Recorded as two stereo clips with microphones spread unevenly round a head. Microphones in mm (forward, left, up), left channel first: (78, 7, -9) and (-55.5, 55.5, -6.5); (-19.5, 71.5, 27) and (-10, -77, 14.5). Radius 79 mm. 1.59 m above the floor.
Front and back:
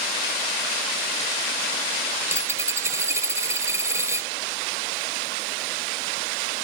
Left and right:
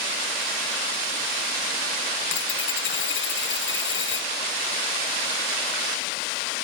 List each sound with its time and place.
2.2 s a dropped coin: 90° left